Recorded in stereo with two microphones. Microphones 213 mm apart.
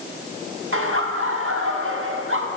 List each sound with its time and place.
0.7 s laughter: 75° right (ahead or behind), 2.0 m